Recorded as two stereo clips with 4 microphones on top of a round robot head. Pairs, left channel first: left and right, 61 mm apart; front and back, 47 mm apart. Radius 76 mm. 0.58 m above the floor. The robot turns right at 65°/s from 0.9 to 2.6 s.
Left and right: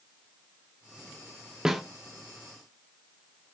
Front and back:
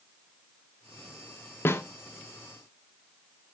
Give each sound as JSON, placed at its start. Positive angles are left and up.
{"t": 1.6, "sound": "a snare drum", "azimuth_deg": -10, "distance_m": 1.1}